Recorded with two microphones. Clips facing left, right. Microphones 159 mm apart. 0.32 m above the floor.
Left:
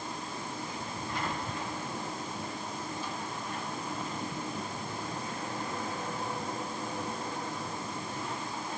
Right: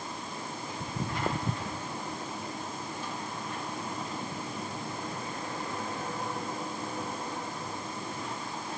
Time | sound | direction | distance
0.8 | footsteps | 75° right (ahead or behind) | ?